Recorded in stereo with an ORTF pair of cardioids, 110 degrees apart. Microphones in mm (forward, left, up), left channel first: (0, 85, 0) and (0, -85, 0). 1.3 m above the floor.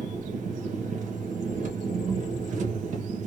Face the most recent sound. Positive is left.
turn(degrees=-50)